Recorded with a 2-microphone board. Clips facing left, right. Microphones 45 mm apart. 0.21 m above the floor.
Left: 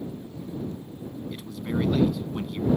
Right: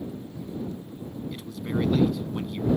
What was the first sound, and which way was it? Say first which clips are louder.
A man speaking: left 1 dB; 5° left (ahead or behind).